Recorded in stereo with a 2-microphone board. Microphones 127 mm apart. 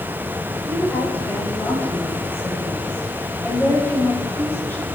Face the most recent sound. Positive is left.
turn(degrees=20)  # may be behind; listen again after turning